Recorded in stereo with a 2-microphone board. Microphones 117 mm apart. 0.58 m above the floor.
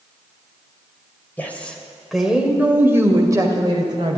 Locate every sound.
1.4 s a woman speaking: 15° left (ahead or behind), 2.5 m; by 4.2 s 45° right (ahead or behind), 2.5 m